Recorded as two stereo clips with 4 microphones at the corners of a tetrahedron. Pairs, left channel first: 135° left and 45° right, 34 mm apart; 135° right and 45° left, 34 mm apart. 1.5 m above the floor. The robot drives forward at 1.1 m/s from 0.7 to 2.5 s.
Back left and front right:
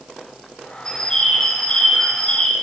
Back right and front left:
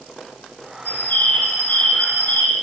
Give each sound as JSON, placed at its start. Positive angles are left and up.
{"t": 0.8, "sound": "a bird", "azimuth_deg": -155, "distance_m": 5.0}